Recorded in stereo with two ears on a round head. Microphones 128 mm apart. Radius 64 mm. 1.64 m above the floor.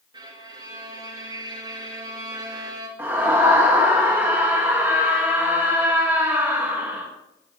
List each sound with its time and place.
0.1 s a violin: 30° right (ahead or behind), 2 m
3.0 s a scream: 15° right (ahead or behind), 1.9 m